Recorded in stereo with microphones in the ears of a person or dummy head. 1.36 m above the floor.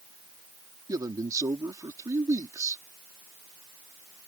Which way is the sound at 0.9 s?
20° right (ahead or behind).